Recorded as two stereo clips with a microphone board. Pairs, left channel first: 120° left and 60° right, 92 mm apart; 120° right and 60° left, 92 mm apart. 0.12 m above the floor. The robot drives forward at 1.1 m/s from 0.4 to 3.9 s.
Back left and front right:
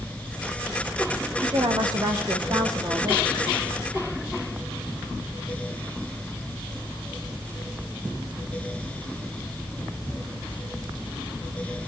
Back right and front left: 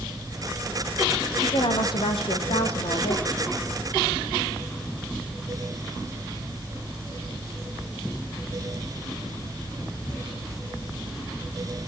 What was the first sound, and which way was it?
A woman speaking, 95° right.